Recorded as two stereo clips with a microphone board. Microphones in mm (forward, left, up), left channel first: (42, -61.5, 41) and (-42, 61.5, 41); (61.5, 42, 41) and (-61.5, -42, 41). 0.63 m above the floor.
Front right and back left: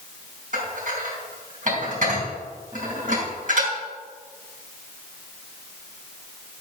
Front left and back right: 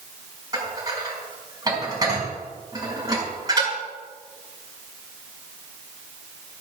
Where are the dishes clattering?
150° left, 4.5 m.